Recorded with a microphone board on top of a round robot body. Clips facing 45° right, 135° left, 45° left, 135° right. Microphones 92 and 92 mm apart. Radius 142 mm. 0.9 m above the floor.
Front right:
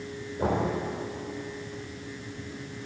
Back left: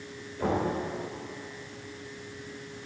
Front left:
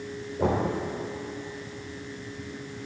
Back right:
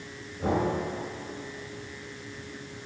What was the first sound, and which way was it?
Knocking, 30° left.